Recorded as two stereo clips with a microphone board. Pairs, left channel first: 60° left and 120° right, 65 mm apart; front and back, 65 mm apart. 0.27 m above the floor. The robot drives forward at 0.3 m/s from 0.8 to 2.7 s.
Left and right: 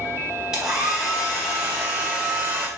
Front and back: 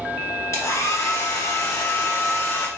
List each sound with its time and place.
0.5 s a hair dryer: 40° right, 1.4 m; by 2.7 s 60° right, 1.1 m